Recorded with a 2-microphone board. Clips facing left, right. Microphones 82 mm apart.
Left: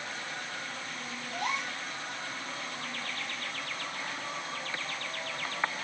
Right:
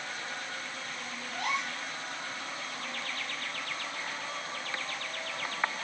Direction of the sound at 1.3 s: 45° right (ahead or behind).